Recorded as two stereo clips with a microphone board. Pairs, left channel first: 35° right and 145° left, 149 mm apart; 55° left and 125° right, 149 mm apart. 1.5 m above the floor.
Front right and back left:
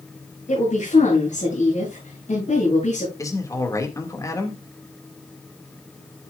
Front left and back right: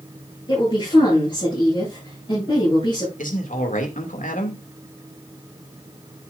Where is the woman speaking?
Straight ahead, 9.5 m.